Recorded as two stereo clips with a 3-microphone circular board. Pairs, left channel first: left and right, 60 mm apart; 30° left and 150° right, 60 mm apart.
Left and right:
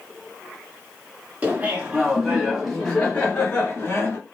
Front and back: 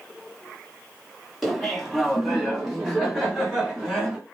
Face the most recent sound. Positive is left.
turn(degrees=130)